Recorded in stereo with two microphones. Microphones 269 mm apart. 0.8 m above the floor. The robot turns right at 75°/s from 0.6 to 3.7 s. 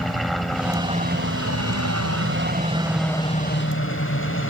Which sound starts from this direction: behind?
A helicopter, at 0.0 s.